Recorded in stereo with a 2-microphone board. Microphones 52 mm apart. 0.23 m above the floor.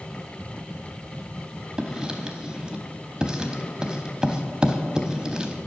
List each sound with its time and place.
1.8 s writing: 15° right (ahead or behind), 0.7 m